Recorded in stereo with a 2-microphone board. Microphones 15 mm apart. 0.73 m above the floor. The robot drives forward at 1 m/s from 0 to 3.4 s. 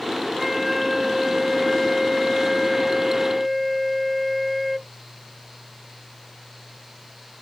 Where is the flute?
10° right (ahead or behind); by 4.9 s 5° right (ahead or behind).